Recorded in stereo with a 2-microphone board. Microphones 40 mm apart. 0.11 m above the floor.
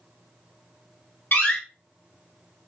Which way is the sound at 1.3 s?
45° left (ahead or behind).